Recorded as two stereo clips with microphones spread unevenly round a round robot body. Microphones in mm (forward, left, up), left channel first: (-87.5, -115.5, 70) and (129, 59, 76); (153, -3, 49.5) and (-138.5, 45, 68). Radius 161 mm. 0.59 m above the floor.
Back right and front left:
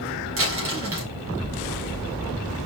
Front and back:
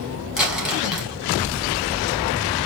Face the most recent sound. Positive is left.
turn(degrees=85)